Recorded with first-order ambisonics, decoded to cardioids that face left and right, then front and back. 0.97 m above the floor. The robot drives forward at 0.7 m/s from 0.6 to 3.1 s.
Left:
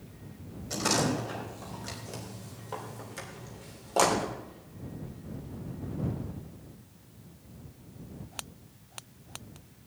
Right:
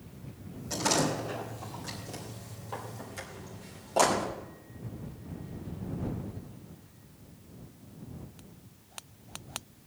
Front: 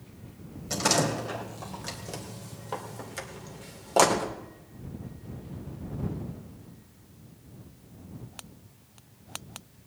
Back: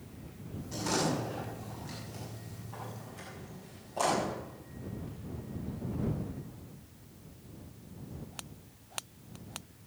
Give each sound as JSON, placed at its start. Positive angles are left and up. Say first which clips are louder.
{"t": 0.7, "sound": "a door slam", "louder": "even, front 6 dB", "azimuth_deg": 5, "distance_m": 4.5}